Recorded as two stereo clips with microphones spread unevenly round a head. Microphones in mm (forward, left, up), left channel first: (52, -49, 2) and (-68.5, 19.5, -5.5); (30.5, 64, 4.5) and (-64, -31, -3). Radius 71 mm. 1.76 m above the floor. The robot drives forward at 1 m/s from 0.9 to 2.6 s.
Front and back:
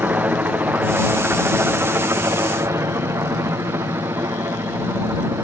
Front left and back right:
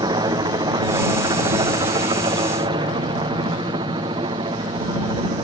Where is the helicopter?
145° right; by 5.4 s 150° right.